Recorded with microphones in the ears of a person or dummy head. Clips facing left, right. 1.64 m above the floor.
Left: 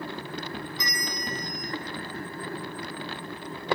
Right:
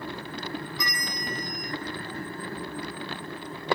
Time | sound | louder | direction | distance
0.8 | a bell | even | 25° left (ahead or behind) | 1.5 m